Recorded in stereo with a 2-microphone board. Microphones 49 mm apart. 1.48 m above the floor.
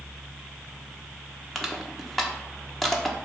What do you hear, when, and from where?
1.6 s crushing: centre (ahead or behind), 1.1 m